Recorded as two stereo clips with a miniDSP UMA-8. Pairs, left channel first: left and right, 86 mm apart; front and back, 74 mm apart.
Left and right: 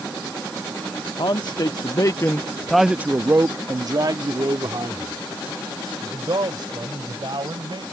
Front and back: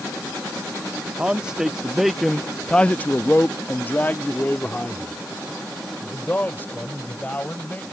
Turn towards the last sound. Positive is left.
turn(degrees=-65)